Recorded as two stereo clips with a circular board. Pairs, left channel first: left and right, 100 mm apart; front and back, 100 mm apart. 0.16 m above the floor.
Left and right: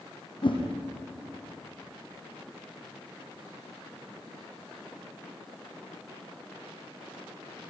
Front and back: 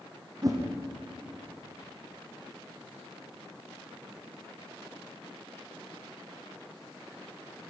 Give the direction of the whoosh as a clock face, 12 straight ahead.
8 o'clock.